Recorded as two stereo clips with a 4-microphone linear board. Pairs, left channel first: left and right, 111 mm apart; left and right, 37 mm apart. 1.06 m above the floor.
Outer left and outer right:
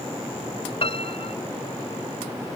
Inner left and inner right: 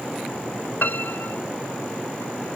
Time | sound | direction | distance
0.8 | a piano | 60° left (ahead or behind) | ?